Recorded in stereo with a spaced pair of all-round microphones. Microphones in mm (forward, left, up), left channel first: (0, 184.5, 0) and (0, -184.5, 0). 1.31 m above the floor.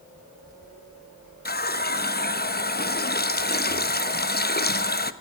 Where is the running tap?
25° left (ahead or behind), 0.9 m.